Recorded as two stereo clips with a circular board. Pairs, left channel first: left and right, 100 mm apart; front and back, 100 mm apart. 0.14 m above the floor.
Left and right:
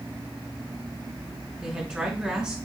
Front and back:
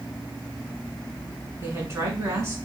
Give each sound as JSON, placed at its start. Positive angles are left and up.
{"t": 1.6, "sound": "a woman speaking", "azimuth_deg": -155, "distance_m": 1.7}